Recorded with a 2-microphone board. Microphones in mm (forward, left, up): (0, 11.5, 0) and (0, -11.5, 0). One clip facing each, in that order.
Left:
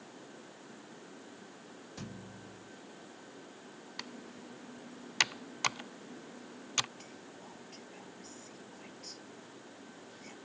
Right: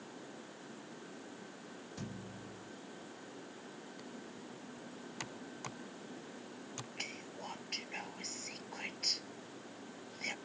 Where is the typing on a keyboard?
60° left (ahead or behind).